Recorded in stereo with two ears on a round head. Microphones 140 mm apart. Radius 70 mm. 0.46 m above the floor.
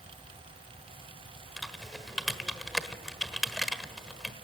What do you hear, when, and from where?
1.6 s typing on a keyboard: centre (ahead or behind), 1.3 m